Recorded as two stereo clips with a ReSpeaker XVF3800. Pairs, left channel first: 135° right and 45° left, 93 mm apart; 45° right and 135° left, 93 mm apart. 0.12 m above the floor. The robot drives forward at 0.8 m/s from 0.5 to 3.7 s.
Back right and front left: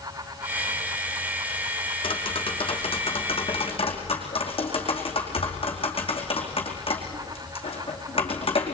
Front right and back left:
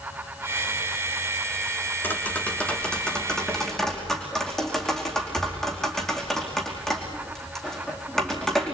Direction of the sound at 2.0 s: 115° right.